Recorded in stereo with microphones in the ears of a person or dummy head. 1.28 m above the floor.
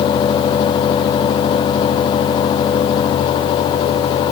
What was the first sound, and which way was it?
Only background noise.